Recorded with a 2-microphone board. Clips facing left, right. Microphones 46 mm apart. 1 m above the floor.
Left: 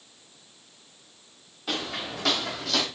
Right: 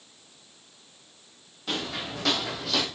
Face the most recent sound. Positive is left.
turn(degrees=-5)  # may be behind; listen again after turning